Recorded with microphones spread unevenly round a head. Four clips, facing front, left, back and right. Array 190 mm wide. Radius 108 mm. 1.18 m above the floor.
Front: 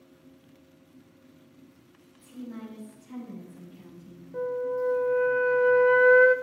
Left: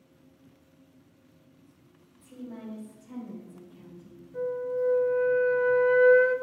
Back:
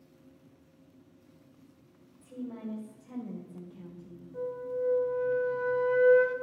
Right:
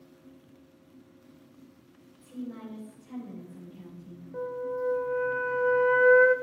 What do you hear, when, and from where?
2.2 s a woman speaking: 175° left, 5.5 m
4.3 s a flute: 40° right, 1.2 m